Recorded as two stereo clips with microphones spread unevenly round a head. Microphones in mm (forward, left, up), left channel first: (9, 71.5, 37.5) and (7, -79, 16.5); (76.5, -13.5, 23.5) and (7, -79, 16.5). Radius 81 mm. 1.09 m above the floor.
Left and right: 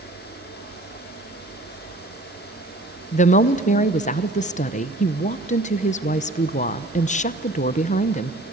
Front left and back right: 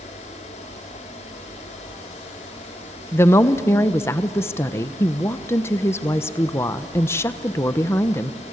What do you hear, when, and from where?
0.0 s a fan: 65° left, 2.5 m
3.1 s a woman speaking: 105° left, 0.9 m